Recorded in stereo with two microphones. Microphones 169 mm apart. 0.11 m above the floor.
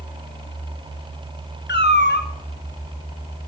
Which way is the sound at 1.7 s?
85° left.